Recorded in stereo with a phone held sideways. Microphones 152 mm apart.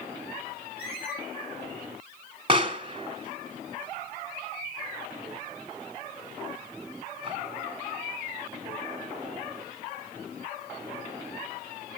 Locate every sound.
0.8 s a squeak: 85° left, 10 m
2.5 s a pop: 35° right (ahead or behind), 2.5 m